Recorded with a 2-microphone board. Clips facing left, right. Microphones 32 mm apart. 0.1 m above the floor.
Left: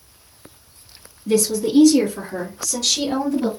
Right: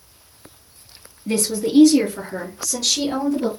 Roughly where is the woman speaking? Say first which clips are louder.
Left 3 dB; right.